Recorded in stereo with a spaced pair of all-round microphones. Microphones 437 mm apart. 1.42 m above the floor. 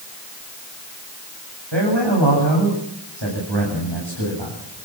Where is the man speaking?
75° right (ahead or behind), 8 m.